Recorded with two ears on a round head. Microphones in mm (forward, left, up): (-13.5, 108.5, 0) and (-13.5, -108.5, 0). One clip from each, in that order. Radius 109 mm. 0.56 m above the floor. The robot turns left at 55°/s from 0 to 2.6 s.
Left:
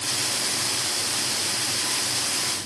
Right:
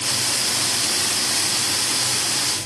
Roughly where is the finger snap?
I don't hear a finger snap.